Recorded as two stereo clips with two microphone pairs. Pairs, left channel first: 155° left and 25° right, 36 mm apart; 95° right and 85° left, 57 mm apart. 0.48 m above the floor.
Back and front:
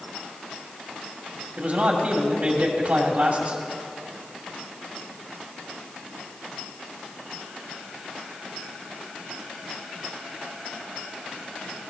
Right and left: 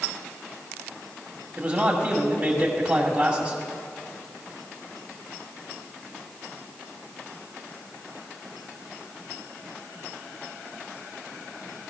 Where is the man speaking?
30° left, 2 m.